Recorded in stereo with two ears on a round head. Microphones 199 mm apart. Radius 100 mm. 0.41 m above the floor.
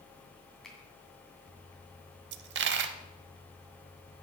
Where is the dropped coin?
55° right (ahead or behind), 0.6 m.